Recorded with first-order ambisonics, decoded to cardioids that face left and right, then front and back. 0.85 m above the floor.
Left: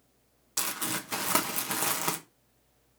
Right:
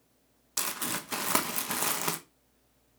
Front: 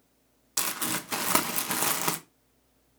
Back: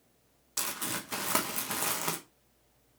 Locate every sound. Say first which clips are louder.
0.6 s crumpling: left 1 dB, front 4 dB; 5° right, 0.9 m